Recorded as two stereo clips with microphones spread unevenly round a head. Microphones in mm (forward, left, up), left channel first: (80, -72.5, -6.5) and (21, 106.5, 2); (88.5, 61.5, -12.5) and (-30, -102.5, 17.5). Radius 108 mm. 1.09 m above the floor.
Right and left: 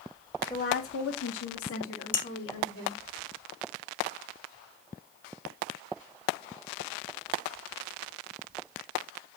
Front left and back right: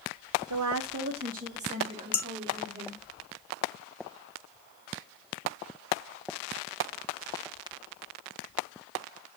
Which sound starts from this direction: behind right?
A woman speaking, at 0.5 s.